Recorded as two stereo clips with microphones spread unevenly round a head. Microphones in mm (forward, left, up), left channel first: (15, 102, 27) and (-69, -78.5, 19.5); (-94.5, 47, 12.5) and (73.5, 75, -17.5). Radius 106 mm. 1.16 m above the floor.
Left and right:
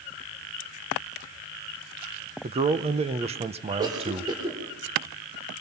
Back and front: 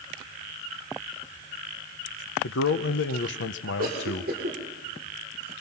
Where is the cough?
40° right, 3 m.